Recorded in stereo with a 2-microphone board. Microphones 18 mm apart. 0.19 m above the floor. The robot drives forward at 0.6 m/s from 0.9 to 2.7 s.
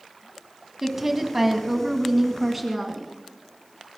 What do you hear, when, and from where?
0.8 s a woman speaking: 20° right (ahead or behind), 1.5 m; by 3.1 s 15° right (ahead or behind), 2 m